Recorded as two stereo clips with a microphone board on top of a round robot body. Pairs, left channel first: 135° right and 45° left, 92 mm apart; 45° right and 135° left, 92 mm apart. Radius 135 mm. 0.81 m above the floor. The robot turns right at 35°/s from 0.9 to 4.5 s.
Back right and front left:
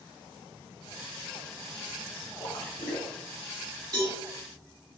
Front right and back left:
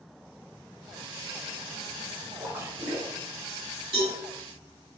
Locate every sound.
2.4 s a splash: 170° right, 0.6 m; by 3.1 s 145° right, 0.6 m
3.9 s a cowbell: 100° left, 1.2 m; by 4.2 s 110° left, 1.2 m